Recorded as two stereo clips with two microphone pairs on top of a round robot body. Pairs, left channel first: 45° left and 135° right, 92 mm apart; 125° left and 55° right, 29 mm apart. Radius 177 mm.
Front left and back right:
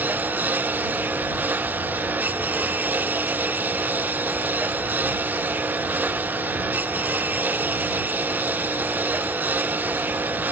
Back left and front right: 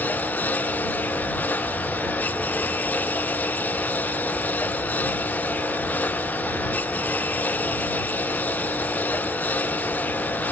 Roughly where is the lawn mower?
Behind left.